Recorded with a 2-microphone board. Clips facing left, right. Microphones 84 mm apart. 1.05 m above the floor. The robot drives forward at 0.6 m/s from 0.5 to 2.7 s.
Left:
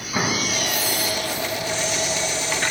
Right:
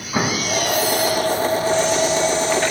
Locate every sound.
0.1 s an explosion: 15° right (ahead or behind), 0.6 m